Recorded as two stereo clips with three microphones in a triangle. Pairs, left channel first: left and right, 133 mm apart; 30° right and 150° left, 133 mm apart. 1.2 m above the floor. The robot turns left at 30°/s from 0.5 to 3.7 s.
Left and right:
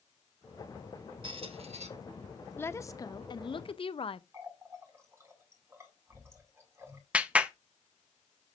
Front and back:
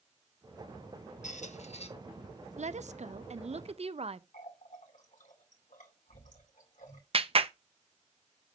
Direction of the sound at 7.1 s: 170° right.